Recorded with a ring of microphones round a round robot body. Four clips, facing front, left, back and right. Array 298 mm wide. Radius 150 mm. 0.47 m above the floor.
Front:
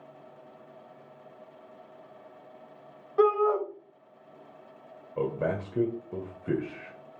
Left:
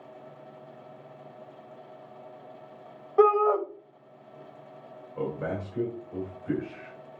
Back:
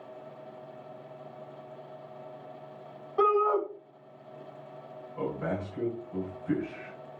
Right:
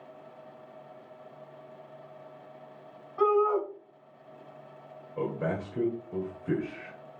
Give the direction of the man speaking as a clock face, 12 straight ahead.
12 o'clock.